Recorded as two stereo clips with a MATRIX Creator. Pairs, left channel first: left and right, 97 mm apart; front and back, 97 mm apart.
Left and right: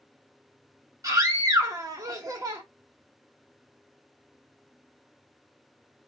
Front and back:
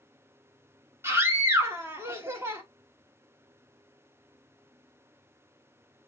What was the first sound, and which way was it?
A scream, 125° right.